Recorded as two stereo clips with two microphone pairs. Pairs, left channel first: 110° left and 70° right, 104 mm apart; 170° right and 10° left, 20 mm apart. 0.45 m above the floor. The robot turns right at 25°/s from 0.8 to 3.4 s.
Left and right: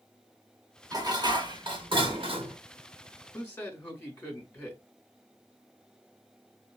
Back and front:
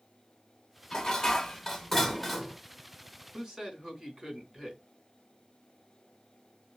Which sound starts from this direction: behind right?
Dishes clattering, at 0.9 s.